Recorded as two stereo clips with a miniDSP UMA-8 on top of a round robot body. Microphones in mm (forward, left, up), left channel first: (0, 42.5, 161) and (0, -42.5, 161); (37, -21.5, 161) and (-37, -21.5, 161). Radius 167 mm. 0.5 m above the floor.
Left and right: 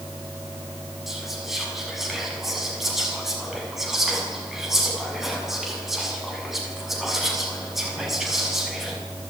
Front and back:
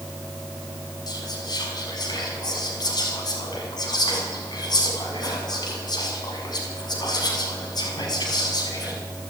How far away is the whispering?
About 6 m.